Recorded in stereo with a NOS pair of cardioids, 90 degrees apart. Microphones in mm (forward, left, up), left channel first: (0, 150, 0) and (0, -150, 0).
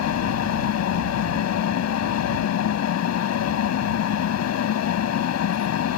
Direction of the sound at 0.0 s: 65° left.